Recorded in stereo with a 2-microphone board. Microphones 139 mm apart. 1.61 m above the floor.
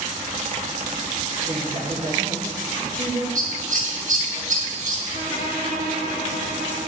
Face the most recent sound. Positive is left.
turn(degrees=-75)  # may be behind; listen again after turning